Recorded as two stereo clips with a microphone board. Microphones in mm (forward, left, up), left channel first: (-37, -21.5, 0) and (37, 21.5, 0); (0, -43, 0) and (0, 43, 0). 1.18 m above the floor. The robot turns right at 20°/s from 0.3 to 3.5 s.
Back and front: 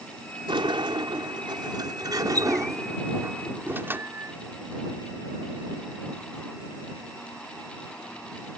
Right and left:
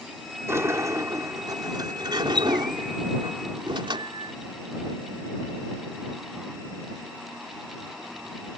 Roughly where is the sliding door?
Ahead left.